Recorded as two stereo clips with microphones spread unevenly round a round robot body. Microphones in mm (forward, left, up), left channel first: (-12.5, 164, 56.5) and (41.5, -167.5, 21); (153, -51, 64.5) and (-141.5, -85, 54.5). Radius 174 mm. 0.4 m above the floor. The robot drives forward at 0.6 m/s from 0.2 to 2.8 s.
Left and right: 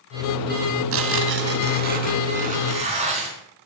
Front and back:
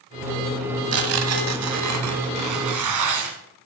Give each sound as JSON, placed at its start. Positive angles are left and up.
{"t": 0.9, "sound": "tearing paper", "azimuth_deg": -130, "distance_m": 1.4}